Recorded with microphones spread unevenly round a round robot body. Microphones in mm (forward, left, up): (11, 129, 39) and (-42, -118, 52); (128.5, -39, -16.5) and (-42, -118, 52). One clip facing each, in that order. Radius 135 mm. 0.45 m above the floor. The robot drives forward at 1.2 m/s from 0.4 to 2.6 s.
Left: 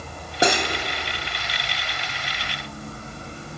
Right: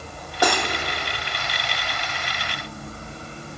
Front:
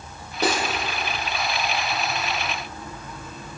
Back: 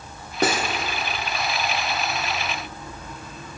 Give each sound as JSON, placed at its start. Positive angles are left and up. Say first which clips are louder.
{"t": 0.4, "sound": "cutlery clinking", "louder": "left 1 dB, back 1 dB", "azimuth_deg": 145, "distance_m": 1.7}